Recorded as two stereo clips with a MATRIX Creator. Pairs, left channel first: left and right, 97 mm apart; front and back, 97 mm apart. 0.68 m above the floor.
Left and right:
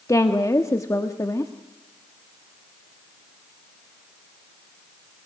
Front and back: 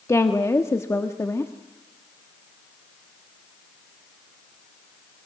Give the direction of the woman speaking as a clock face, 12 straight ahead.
10 o'clock.